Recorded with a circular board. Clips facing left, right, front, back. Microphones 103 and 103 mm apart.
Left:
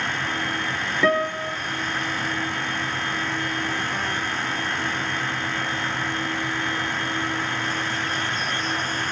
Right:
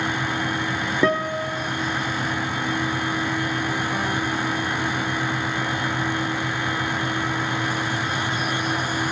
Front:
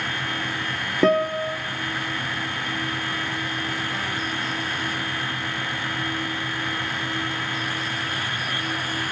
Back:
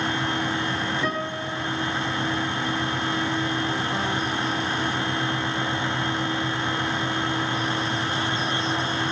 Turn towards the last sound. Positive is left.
turn(degrees=-25)